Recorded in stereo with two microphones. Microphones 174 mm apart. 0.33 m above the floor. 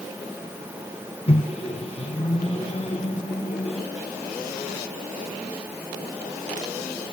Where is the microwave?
35° left (ahead or behind), 2.0 m.